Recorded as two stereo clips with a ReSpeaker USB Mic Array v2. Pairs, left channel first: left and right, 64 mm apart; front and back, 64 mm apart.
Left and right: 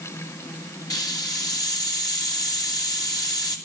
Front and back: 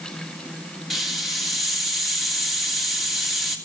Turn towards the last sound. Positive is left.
turn(degrees=90)